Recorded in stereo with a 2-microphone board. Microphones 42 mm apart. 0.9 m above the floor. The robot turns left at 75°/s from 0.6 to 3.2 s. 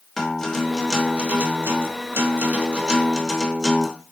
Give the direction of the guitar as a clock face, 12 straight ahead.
12 o'clock.